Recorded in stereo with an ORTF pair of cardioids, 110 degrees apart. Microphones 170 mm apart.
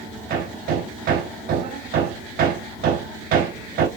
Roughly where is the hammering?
Right.